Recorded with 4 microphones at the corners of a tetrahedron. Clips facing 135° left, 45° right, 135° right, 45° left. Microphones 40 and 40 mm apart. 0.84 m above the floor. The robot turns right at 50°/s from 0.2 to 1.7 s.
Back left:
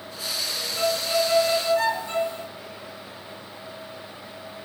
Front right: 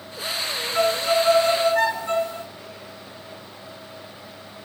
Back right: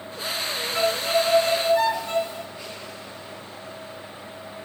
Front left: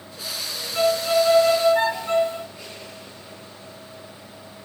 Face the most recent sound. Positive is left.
turn(degrees=0)